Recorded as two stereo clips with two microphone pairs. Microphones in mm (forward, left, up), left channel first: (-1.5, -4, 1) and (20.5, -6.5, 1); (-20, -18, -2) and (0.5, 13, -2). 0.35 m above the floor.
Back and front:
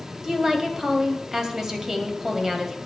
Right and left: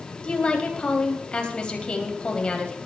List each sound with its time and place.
0.2 s a woman speaking: 70° right, 2.5 m